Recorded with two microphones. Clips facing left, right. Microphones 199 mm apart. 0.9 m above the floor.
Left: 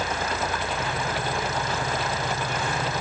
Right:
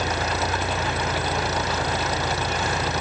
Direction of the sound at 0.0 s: 75° right (ahead or behind).